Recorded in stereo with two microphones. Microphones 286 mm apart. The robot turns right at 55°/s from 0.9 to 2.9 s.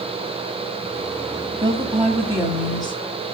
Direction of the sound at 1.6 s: 30° right.